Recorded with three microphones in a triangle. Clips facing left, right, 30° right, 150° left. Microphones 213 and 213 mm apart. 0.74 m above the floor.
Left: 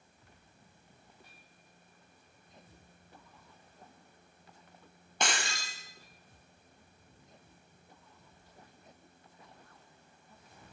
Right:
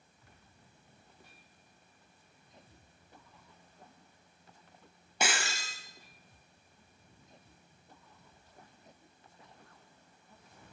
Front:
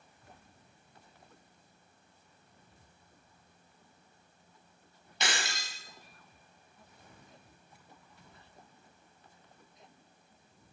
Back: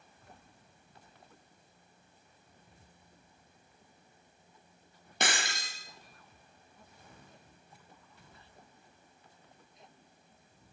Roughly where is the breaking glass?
Behind.